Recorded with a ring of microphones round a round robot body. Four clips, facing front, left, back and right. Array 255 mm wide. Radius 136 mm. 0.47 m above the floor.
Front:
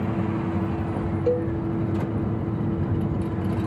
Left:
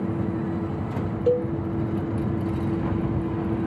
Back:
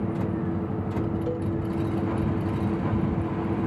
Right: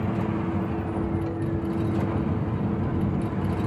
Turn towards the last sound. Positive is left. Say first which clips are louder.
# left 8 dB, front 6 dB
turn(degrees=60)